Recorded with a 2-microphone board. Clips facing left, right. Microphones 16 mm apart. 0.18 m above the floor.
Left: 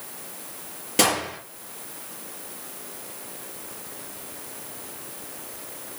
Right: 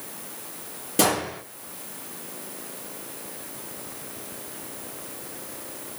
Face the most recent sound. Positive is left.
turn(degrees=35)  # may be behind; listen again after turning